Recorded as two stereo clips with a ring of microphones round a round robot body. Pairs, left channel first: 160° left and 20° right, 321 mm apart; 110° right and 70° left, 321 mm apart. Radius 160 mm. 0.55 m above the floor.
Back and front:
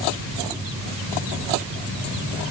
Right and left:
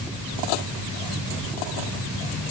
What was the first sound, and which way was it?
Only background noise.